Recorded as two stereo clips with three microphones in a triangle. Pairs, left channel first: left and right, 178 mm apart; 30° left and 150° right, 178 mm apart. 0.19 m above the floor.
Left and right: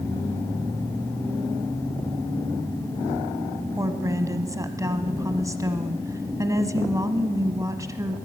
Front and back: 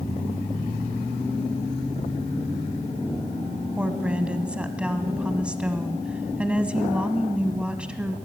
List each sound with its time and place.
3.8 s a woman speaking: 80° right, 1.0 m